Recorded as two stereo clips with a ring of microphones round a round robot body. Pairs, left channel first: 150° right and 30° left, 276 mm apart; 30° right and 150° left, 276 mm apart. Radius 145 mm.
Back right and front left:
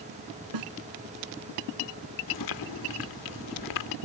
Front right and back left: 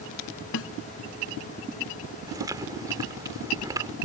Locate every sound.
0.5 s a snare drum: 15° left
2.3 s chewing: 130° right